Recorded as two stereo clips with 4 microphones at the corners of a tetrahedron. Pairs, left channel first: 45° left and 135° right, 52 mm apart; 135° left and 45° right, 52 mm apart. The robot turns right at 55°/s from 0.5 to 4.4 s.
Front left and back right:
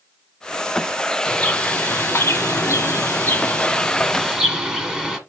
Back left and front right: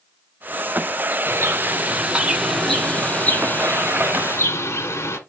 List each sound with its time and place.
1.2 s a bird: 25° right, 1.5 m; by 5.2 s 150° left, 1.5 m